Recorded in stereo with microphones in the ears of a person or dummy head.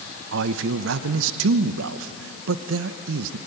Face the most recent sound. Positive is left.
turn(degrees=-75)  # may be behind; listen again after turning